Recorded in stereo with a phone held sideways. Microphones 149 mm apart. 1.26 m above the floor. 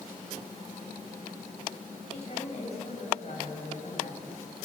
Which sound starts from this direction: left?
A woman speaking, at 2.1 s.